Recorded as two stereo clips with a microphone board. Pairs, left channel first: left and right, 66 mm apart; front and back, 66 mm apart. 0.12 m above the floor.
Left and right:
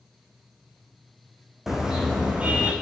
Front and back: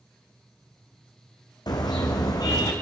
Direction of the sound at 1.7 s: 5° right.